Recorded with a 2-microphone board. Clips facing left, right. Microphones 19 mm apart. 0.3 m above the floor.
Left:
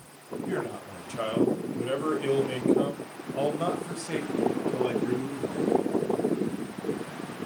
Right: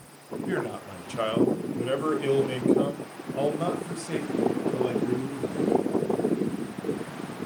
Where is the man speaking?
35° right (ahead or behind), 1.6 m; by 5.8 s 25° left (ahead or behind), 2 m.